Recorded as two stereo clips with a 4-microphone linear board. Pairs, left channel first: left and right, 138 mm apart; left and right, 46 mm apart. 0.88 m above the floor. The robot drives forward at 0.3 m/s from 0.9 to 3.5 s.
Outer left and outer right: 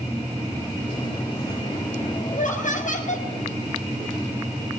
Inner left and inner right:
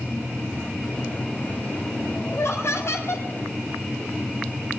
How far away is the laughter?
About 6 m.